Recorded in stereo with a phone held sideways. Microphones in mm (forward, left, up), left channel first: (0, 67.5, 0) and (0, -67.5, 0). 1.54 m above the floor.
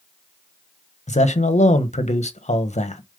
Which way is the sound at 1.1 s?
60° left (ahead or behind).